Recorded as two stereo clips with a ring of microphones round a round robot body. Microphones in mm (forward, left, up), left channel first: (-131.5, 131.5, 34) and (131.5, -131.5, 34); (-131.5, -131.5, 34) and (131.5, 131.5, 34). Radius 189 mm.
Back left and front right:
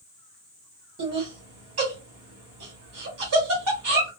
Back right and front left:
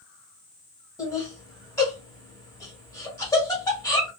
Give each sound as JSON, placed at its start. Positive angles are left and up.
{"t": 1.0, "sound": "laughter", "azimuth_deg": -60, "distance_m": 1.6}